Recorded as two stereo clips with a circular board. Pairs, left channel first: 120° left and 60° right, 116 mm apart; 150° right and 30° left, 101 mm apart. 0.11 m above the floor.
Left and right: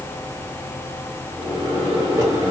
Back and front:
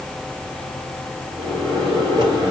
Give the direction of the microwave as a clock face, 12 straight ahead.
12 o'clock.